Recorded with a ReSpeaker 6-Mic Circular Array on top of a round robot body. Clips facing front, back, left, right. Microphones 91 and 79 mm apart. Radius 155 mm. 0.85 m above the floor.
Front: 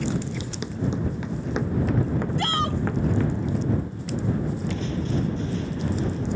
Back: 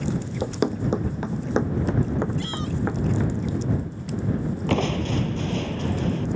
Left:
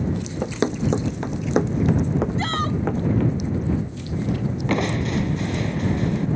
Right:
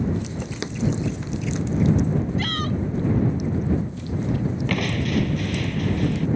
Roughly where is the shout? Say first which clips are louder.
Front 4 dB, left 2 dB; ahead left.